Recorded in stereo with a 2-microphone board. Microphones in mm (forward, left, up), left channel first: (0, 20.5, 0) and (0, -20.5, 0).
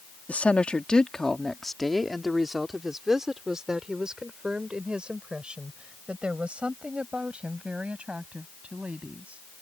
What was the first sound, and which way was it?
A woman speaking, 35° left (ahead or behind).